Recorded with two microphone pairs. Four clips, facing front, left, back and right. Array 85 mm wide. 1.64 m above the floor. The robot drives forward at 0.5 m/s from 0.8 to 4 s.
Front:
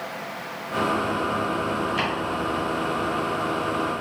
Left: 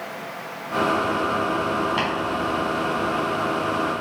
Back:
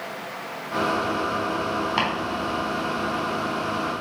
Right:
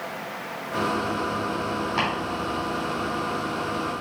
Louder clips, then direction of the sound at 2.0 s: Left 1 dB, back 2 dB; 175° right.